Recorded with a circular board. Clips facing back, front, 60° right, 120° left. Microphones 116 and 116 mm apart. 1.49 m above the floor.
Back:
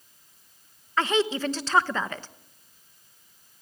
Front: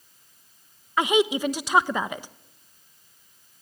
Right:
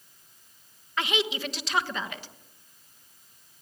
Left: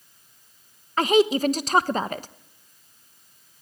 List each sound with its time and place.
1.0 s a woman speaking: 75° left, 1.1 m